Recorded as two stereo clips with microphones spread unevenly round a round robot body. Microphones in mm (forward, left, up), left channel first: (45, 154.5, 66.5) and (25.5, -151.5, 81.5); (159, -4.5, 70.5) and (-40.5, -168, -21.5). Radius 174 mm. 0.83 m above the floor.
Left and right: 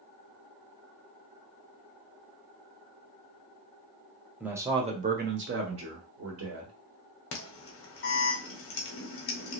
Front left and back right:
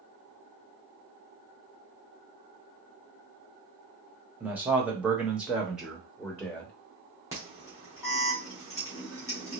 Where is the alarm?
140° left, 0.8 m.